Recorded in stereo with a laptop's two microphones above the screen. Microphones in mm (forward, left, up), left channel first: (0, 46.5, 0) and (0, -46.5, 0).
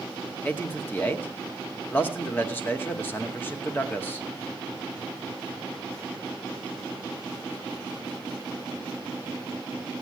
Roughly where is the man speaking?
Left.